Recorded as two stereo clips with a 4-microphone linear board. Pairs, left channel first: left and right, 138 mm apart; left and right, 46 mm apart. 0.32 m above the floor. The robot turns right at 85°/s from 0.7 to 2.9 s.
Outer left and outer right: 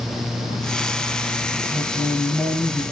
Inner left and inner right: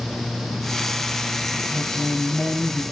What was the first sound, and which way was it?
A woman speaking, 70° right.